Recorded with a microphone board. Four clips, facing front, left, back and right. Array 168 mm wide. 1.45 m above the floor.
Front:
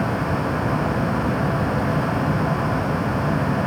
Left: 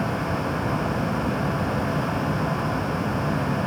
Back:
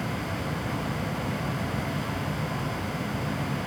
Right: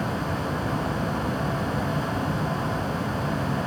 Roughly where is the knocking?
No knocking in this recording.